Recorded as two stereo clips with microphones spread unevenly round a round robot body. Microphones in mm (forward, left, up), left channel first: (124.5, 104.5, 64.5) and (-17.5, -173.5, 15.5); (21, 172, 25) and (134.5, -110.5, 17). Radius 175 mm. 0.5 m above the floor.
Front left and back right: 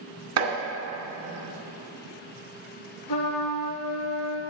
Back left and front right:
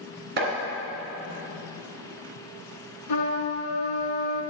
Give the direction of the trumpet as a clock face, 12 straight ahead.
9 o'clock.